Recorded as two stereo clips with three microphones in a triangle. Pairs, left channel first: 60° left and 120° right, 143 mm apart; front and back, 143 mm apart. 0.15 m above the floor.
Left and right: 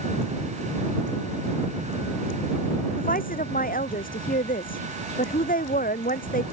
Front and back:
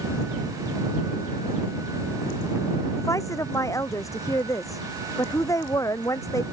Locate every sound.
3.0 s a woman speaking: 70° left